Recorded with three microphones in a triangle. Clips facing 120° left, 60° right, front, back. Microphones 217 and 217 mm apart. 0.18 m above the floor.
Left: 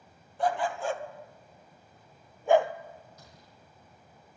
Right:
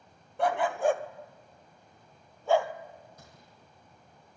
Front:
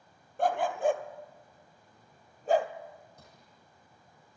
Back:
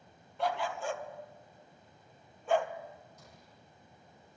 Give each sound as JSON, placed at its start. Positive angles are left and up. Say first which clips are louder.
{"t": 0.4, "sound": "a dog barking", "louder": "right 3 dB, front 6 dB", "azimuth_deg": -40, "distance_m": 1.6}
{"t": 3.2, "sound": "a gunshot", "louder": "even, back 1 dB", "azimuth_deg": -20, "distance_m": 7.5}